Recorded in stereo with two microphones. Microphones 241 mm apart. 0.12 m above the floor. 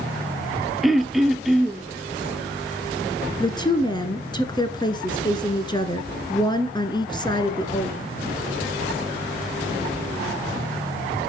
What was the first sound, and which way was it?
Throat clearing, centre (ahead or behind).